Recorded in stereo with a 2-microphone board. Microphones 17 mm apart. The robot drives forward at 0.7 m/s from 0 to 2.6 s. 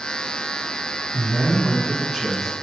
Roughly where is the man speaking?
Right.